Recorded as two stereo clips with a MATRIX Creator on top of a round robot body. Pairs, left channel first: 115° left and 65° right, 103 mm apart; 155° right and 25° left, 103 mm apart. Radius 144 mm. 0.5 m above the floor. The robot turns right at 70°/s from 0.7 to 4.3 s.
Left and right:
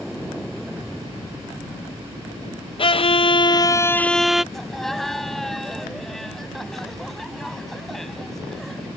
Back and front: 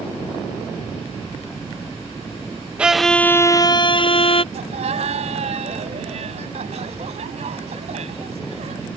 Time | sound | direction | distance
2.8 | a violin | 100° left | ?
4.5 | laughter | 25° left | ?